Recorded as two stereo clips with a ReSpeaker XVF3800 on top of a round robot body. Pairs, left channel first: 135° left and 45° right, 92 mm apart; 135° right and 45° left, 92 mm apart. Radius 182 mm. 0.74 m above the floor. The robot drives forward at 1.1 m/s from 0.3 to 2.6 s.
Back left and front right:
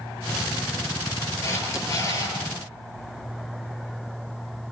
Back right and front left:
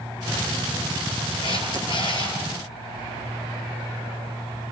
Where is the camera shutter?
165° right, 10 m; by 2.4 s 170° right, 11 m.